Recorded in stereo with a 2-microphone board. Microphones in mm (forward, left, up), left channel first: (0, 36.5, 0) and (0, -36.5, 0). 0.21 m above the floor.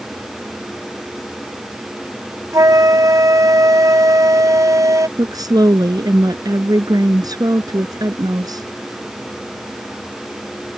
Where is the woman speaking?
65° right (ahead or behind).